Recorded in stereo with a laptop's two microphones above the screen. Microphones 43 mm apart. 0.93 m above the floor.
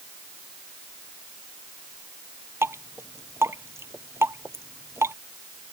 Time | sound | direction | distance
2.6 | dripping | 90° right | ?